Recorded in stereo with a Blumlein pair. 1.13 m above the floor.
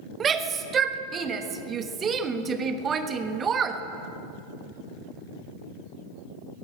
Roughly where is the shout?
Ahead right.